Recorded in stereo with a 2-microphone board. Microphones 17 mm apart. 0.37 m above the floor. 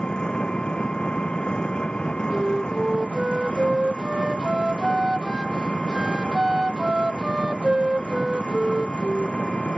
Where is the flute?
40° right (ahead or behind).